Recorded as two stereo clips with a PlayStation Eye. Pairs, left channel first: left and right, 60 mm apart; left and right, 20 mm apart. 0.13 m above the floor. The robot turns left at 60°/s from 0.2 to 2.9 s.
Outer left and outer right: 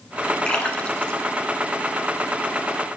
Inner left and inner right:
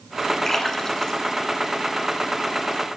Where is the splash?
15° left (ahead or behind), 0.7 m; by 2.2 s 5° left (ahead or behind), 0.7 m.